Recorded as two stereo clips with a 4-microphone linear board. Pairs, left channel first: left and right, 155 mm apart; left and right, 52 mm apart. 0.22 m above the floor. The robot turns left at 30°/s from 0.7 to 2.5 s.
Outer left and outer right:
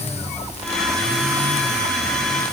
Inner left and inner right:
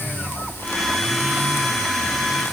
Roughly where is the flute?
I don't hear a flute.